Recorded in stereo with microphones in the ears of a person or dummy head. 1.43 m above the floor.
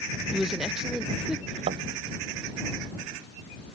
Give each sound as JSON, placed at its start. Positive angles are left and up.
{"t": 0.3, "sound": "a woman speaking", "side_deg": -5}
{"t": 1.7, "sound": "a thud", "side_deg": -25}